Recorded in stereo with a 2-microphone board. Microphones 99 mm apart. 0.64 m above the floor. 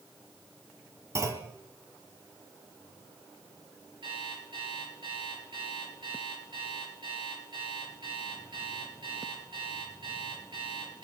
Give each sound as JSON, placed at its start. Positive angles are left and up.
{"t": 1.1, "sound": "a clunk", "side_deg": -30, "distance_m": 1.8}
{"t": 4.0, "sound": "an alarm clock", "side_deg": -50, "distance_m": 4.5}